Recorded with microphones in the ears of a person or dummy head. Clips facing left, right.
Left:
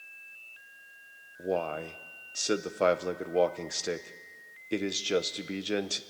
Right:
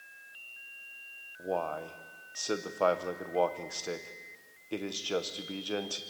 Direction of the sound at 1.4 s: 20° left (ahead or behind).